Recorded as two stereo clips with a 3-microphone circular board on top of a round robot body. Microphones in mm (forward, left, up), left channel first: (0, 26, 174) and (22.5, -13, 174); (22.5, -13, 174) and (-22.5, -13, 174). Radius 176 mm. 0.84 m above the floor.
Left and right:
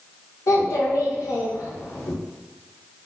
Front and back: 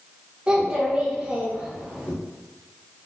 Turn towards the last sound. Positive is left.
turn(degrees=110)